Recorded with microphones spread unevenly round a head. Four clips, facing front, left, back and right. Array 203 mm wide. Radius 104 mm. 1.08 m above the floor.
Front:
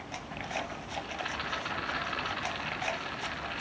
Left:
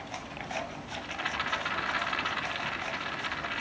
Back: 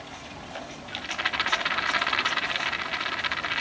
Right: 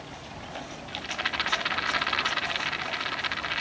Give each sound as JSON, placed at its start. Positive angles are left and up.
{"t": 0.9, "sound": "a rattle", "azimuth_deg": -150, "distance_m": 3.5}